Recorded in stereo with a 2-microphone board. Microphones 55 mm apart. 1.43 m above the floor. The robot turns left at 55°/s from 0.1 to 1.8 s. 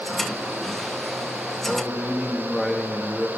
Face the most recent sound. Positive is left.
turn(degrees=0)  # may be behind; listen again after turning